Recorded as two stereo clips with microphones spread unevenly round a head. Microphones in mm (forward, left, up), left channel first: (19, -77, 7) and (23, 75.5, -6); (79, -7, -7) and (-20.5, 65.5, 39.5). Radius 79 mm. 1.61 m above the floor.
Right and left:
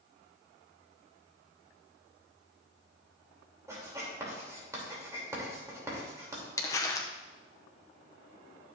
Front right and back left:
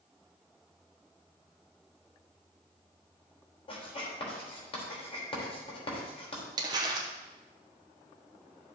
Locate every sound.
3.7 s writing: 15° left, 3 m
6.6 s crumpling: 160° right, 0.9 m